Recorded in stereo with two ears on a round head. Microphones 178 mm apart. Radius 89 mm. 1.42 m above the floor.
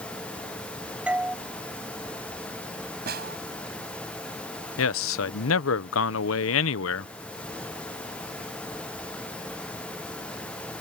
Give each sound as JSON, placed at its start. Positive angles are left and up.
{"t": 1.1, "sound": "a doorbell", "side_deg": -5}
{"t": 3.1, "sound": "a snare drum", "side_deg": -50}
{"t": 4.8, "sound": "a man speaking", "side_deg": 75}